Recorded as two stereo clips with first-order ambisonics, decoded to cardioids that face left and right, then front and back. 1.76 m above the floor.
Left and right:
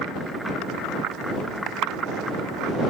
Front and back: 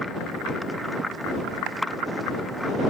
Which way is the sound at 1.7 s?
145° right.